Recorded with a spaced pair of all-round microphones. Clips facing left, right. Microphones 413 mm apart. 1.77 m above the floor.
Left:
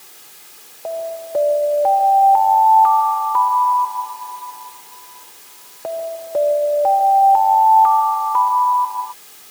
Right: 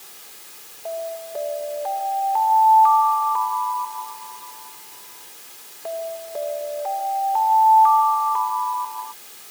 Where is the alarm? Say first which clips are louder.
Left 4 dB; 80° left.